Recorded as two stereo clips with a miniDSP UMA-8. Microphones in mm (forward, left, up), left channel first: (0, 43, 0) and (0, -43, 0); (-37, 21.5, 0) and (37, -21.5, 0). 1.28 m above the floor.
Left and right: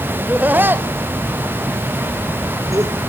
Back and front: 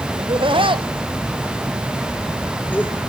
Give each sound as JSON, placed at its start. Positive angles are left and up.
{"t": 0.2, "sound": "laughter", "azimuth_deg": -15, "distance_m": 2.0}